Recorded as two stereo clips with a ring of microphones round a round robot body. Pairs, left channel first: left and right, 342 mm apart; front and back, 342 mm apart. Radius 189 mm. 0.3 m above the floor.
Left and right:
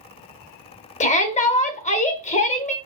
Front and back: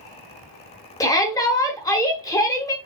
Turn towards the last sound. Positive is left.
turn(degrees=65)